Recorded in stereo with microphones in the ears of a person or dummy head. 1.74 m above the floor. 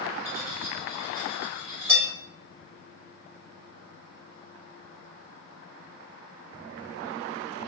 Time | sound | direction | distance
0.2 | cutlery clinking | 15° right (ahead or behind) | 2.0 m